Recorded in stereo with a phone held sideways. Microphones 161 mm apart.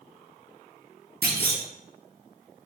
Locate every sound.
1.2 s a clunk: 80° right, 1.0 m